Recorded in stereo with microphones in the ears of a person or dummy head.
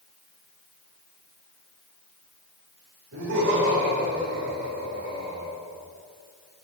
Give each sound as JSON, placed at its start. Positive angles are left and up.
{"t": 3.1, "sound": "laughter", "side_deg": -75, "distance_m": 5.0}